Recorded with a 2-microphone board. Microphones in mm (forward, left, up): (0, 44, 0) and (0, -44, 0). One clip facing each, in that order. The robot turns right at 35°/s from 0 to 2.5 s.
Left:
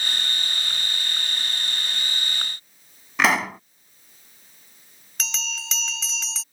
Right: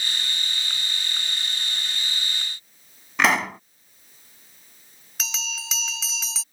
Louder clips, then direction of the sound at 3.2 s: Even; centre (ahead or behind).